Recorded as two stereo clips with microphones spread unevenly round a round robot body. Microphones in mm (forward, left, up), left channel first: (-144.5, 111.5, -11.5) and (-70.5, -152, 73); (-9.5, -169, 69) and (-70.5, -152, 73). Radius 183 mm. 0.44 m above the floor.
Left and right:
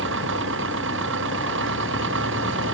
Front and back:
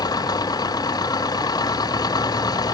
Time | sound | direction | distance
0.0 | an engine running | 15° right | ?